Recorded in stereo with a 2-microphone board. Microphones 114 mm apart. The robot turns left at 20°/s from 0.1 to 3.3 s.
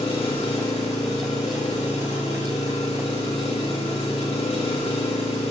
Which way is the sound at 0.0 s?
125° left.